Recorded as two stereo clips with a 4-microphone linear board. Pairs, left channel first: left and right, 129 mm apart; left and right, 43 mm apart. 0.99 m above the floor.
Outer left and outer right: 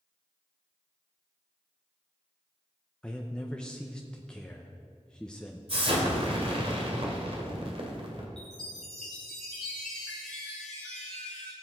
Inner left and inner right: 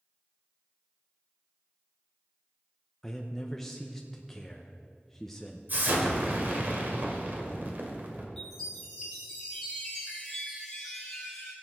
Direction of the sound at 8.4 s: 5° left (ahead or behind).